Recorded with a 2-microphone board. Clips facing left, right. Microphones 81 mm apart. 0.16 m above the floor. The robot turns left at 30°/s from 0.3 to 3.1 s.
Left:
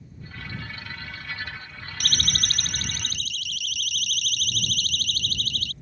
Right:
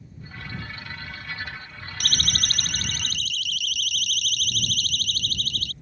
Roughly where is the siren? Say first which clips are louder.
Even; right.